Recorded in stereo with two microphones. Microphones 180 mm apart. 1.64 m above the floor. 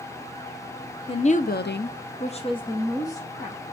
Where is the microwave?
I don't hear a microwave.